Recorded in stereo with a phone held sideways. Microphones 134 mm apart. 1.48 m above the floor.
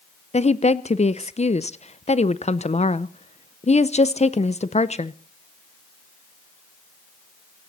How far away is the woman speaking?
About 0.6 m.